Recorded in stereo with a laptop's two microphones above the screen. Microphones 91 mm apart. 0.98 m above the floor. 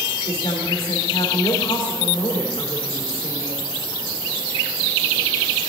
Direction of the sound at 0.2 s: 75° left (ahead or behind).